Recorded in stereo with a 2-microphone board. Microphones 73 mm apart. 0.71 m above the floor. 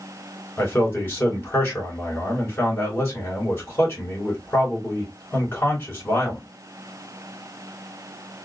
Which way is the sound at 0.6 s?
35° left (ahead or behind).